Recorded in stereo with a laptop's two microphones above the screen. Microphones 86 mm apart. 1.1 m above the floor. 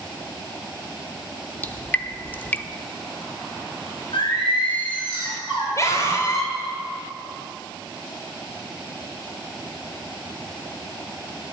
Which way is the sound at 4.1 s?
70° left (ahead or behind).